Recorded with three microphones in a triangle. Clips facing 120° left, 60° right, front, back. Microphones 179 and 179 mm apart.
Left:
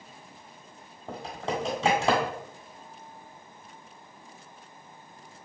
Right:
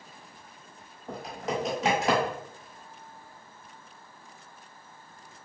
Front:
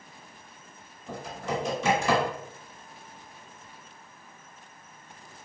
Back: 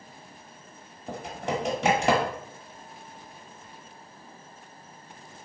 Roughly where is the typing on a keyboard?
Behind.